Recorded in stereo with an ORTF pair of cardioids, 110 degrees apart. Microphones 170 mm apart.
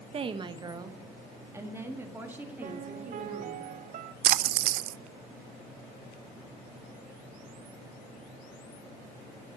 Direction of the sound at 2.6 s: 55° right.